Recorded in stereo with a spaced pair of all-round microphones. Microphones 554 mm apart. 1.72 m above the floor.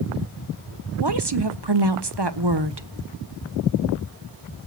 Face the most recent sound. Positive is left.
turn(degrees=-45)  # may be behind; listen again after turning